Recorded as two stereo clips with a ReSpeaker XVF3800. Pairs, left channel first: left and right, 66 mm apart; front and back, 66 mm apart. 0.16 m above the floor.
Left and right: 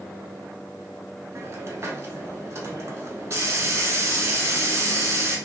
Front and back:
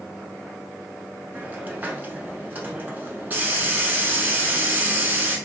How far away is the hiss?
About 0.7 m.